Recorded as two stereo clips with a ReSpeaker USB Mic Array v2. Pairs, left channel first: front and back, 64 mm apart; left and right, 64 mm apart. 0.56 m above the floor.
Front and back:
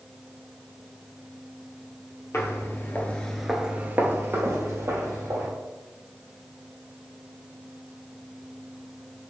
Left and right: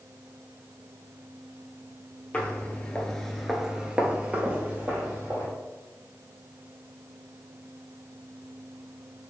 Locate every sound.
2.3 s footsteps: 30° left, 0.8 m; by 5.5 s 150° right, 1.3 m